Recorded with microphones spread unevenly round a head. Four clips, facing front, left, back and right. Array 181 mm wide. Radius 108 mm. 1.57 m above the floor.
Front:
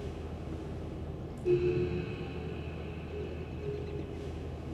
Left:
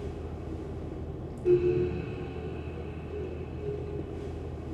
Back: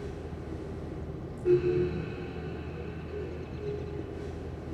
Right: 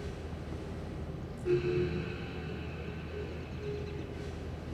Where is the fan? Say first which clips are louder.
Left 4 dB, back 2 dB; 125° left, 1.7 m.